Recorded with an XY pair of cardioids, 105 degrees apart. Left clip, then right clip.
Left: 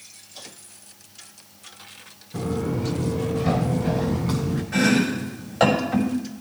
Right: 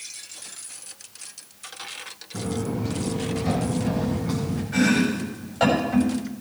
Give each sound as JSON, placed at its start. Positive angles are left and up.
{"t": 2.3, "sound": "footsteps", "azimuth_deg": 70, "distance_m": 5.0}
{"t": 4.7, "sound": "chopping", "azimuth_deg": 55, "distance_m": 6.0}